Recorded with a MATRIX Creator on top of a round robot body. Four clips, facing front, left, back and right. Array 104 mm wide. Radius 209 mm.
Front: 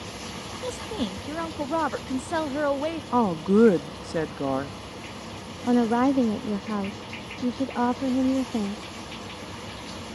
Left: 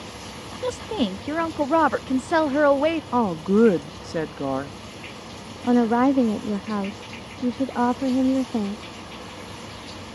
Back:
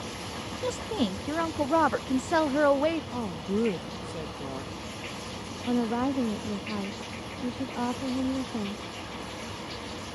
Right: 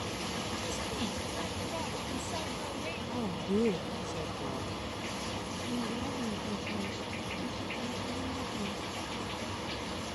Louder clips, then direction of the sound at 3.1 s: Left 9 dB, front 10 dB; 50° left.